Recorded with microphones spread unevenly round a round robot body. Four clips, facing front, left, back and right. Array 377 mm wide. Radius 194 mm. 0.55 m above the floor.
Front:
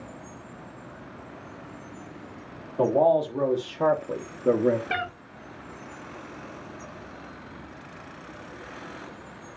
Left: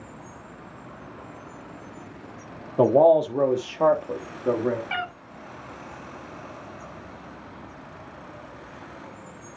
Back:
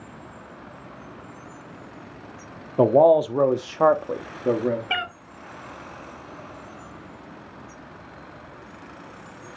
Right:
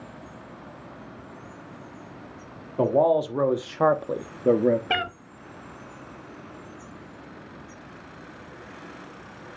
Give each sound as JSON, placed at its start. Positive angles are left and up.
{"t": 2.8, "sound": "a man speaking", "azimuth_deg": 155, "distance_m": 1.3}
{"t": 4.9, "sound": "a cat meowing", "azimuth_deg": -85, "distance_m": 1.2}